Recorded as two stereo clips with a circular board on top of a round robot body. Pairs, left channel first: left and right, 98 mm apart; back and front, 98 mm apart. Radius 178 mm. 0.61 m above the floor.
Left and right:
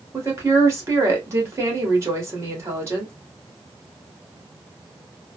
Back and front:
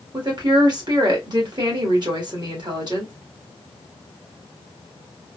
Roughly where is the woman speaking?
Ahead right.